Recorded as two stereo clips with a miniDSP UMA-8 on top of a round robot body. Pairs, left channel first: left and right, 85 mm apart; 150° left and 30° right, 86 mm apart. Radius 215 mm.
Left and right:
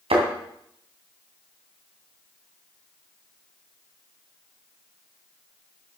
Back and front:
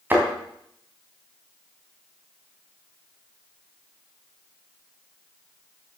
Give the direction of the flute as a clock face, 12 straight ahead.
I don't hear a flute.